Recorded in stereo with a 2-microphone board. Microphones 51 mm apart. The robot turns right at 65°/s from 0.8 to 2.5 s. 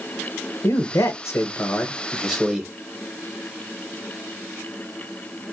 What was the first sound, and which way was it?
A man speaking, 90° left.